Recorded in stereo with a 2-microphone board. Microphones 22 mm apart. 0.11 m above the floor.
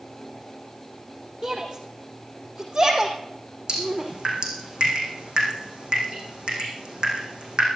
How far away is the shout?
About 2.5 m.